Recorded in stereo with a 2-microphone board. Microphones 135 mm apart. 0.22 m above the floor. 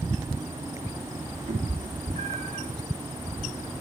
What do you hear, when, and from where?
1.5 s a cat meowing: 90° right, 2.5 m